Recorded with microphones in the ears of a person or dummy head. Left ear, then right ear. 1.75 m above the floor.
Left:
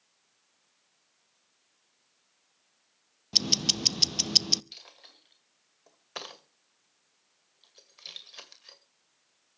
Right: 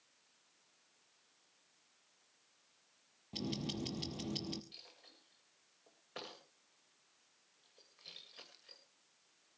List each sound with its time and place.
3.3 s ticking: 60° left (ahead or behind), 0.7 m
4.7 s a dropped coin: 30° left (ahead or behind), 2 m